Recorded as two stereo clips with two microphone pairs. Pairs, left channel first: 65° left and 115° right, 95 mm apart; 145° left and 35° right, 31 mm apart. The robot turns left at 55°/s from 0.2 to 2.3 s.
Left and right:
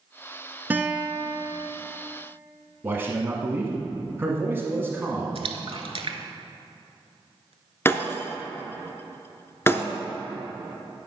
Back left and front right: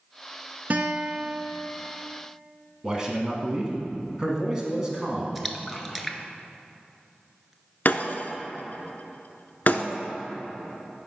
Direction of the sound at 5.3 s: 125° right.